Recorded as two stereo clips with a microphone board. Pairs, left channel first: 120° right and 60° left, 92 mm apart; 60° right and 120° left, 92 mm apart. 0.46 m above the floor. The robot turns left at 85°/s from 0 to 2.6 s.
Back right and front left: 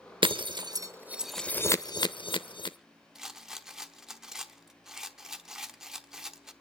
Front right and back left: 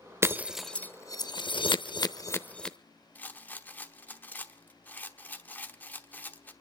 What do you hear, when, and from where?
0.2 s breaking glass: 65° left, 0.8 m; by 2.8 s 140° right, 0.8 m
3.1 s a rattle: 15° right, 1.0 m